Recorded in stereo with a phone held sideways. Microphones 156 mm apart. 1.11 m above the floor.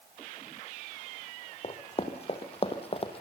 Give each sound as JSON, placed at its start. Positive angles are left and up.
{"t": 1.6, "sound": "running footsteps", "side_deg": 45, "distance_m": 3.0}